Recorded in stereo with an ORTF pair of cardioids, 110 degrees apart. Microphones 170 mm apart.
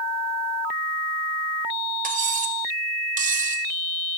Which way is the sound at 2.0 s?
50° right.